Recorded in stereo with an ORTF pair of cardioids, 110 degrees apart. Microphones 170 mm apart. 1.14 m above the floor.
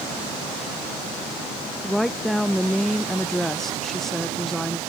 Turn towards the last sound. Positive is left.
turn(degrees=5)